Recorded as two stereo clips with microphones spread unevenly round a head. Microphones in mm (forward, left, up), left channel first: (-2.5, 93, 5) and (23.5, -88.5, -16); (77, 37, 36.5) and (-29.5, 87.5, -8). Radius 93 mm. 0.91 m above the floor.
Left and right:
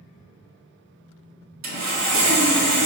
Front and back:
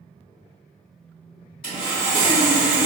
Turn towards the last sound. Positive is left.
turn(degrees=-90)